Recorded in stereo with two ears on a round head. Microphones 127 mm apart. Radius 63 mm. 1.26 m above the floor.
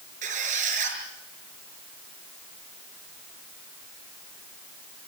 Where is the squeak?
60° right (ahead or behind), 6 m.